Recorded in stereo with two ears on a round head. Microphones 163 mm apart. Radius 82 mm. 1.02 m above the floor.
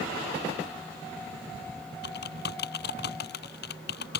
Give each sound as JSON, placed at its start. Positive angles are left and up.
{"t": 2.0, "sound": "typing on a keyboard", "side_deg": 65}